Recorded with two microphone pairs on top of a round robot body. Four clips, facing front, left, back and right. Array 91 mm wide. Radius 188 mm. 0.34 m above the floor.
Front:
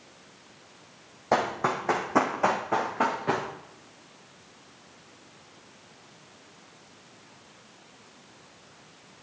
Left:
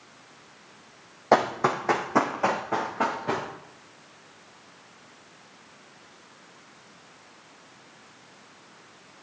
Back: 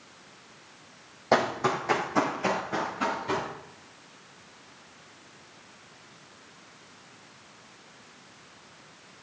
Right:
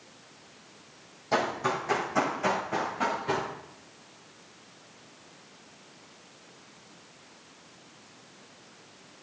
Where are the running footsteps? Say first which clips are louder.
Left 6 dB, back 1 dB; 95° left, 1.4 m; by 3.5 s 30° left, 3 m.